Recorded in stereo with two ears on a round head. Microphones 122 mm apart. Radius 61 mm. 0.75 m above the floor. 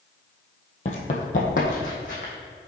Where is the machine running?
No machine running in this recording.